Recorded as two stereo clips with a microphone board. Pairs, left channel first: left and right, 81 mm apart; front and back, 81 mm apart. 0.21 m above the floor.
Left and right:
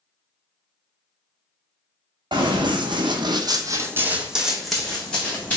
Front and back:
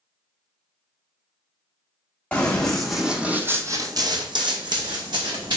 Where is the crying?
I don't hear crying.